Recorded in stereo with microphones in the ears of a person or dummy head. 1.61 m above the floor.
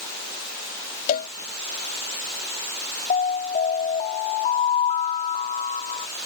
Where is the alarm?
35° left (ahead or behind).